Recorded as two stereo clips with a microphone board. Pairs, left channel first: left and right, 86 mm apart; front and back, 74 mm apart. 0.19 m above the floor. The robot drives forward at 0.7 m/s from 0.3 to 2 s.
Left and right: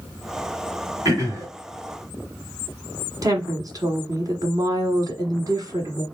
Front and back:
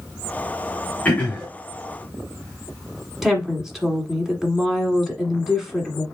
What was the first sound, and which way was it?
Throat clearing, 60° right.